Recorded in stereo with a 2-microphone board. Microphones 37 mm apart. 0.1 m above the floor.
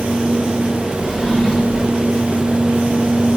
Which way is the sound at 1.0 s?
10° right (ahead or behind).